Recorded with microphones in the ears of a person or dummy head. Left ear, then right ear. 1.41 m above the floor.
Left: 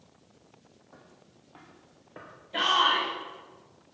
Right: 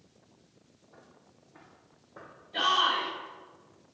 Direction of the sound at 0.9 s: 65° left (ahead or behind).